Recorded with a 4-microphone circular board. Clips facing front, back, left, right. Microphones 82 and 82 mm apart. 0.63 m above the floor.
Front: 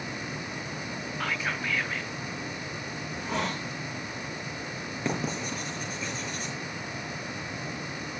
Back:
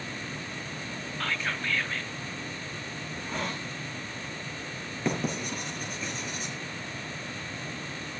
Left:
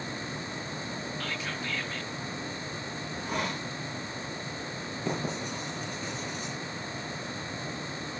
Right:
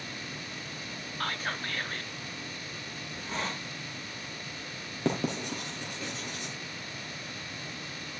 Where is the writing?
95° right, 4 m.